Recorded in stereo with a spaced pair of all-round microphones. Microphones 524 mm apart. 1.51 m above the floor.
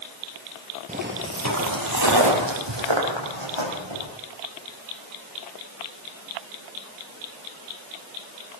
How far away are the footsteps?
About 1.9 m.